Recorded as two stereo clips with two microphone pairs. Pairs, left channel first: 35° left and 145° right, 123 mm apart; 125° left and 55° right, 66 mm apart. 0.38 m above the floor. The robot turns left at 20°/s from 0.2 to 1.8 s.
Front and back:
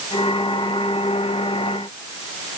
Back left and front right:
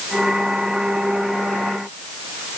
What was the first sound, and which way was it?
Only background noise.